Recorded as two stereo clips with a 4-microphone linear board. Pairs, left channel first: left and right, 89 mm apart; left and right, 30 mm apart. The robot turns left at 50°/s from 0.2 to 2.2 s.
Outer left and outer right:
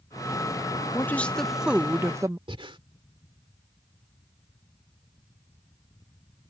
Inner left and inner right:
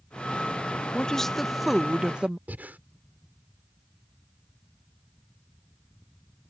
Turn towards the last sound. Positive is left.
turn(degrees=-85)